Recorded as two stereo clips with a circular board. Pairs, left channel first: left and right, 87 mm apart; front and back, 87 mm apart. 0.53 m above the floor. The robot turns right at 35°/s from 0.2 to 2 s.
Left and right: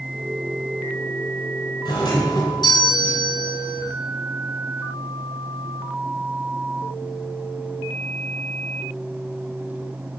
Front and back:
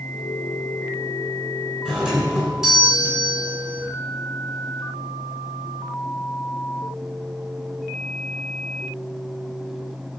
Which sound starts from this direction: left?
A doorbell, at 1.9 s.